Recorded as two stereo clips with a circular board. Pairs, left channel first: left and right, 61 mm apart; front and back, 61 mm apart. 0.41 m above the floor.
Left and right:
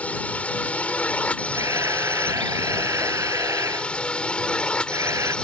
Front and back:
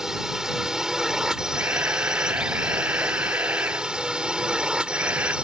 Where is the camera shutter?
120° right.